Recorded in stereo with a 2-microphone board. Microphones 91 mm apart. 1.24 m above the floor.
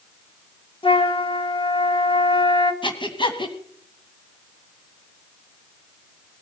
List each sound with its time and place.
0.8 s a flute: 65° left (ahead or behind), 1.7 m
2.8 s breathing: 55° left (ahead or behind), 1.9 m